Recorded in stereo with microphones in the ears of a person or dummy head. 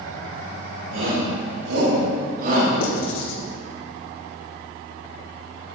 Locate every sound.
0.9 s a shout: 85° right, 4 m; by 2.7 s 45° right (ahead or behind), 3.5 m
2.8 s writing: 80° left, 2 m